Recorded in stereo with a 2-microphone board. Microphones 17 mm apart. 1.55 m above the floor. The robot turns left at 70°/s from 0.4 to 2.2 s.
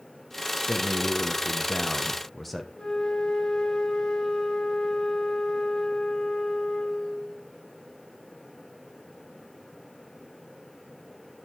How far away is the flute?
About 3.5 m.